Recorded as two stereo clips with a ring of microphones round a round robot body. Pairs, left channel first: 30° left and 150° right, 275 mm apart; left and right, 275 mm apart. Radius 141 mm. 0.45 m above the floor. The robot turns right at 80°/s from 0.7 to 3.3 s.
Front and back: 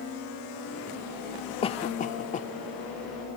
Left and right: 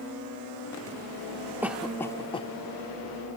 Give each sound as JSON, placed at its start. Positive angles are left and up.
{"t": 1.6, "sound": "a cough", "azimuth_deg": -15}